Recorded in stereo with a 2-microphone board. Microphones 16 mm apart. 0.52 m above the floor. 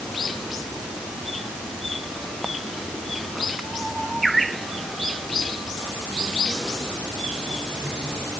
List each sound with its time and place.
Only background noise.